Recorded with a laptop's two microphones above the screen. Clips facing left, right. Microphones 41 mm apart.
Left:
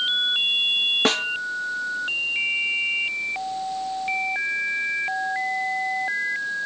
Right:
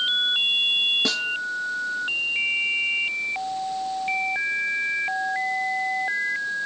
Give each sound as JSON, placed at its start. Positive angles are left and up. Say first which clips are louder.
{"t": 1.1, "sound": "a snare drum", "louder": "left 4 dB", "side_deg": 55, "distance_m": 0.6}